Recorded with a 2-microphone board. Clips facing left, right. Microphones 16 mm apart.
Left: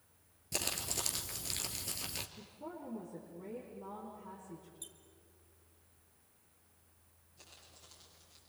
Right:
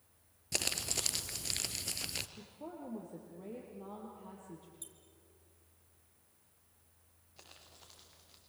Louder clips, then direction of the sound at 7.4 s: Right 1 dB; 80° right.